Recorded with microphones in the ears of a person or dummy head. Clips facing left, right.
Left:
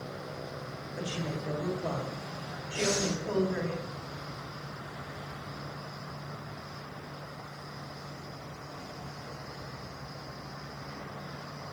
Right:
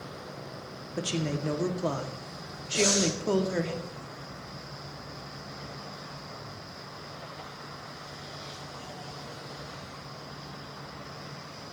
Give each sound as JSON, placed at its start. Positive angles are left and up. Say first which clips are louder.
{"t": 0.9, "sound": "a woman speaking", "louder": "right 5 dB", "side_deg": -55, "distance_m": 1.1}
{"t": 2.7, "sound": "breathing", "louder": "right 4 dB", "side_deg": -25, "distance_m": 4.5}